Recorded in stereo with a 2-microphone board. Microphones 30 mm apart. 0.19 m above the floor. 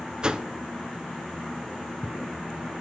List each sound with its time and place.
0.2 s a whoosh: 25° right (ahead or behind), 0.6 m